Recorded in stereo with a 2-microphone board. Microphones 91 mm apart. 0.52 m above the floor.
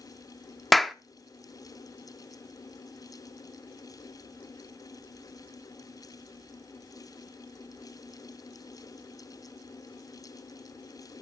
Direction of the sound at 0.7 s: Centre (ahead or behind).